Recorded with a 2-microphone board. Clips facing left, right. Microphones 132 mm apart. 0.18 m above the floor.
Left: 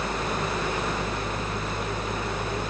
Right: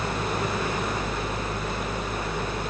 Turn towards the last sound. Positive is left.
No sound to turn to.